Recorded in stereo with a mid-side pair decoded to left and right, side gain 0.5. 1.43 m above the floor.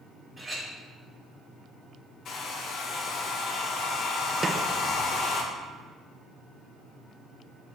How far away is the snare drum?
About 0.7 m.